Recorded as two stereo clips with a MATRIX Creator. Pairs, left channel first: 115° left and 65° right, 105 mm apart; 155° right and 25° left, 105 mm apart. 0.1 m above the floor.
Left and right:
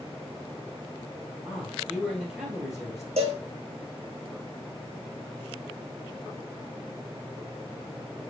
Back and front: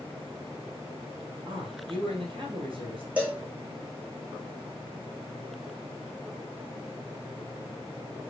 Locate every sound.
1.4 s a man speaking: 15° left, 2 m
3.2 s a cowbell: 55° right, 1.0 m